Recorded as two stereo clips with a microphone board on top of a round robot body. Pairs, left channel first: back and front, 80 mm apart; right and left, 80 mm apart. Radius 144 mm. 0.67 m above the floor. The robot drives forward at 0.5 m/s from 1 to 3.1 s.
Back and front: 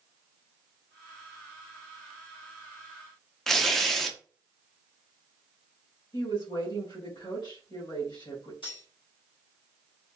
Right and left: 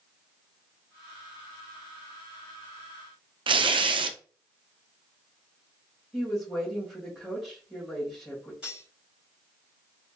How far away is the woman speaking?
About 2.5 m.